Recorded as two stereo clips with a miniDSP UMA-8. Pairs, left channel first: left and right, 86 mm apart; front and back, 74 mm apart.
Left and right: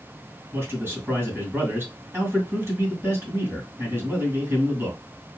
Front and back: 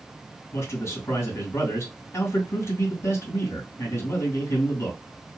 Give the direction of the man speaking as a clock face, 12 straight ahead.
1 o'clock.